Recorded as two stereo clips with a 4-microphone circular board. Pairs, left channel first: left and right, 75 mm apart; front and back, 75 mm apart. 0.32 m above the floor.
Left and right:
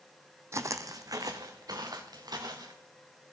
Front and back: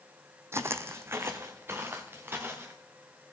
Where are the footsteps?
130° right, 0.6 m; by 2.8 s 120° right, 2 m.